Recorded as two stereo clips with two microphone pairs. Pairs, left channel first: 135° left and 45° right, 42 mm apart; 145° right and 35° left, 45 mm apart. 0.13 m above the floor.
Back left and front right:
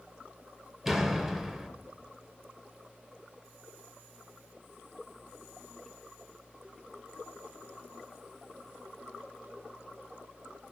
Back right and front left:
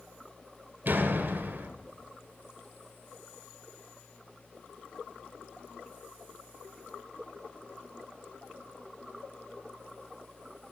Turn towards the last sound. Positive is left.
turn(degrees=30)